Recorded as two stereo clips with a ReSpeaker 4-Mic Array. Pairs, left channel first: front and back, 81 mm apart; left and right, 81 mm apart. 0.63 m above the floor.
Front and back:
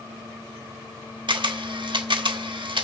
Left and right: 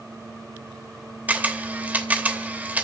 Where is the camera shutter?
160° right, 0.9 m.